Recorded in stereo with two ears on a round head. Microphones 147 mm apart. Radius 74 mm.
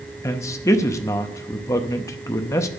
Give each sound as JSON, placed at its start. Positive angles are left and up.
{"t": 0.2, "sound": "a man speaking", "side_deg": 20, "distance_m": 0.7}